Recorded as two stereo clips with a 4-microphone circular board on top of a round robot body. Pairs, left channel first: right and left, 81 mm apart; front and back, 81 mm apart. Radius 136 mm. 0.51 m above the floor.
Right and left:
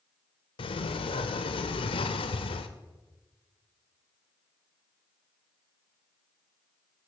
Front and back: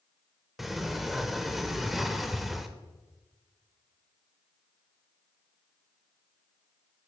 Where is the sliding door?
90° right, 0.6 m.